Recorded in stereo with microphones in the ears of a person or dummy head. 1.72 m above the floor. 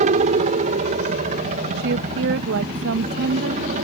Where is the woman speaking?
70° right (ahead or behind).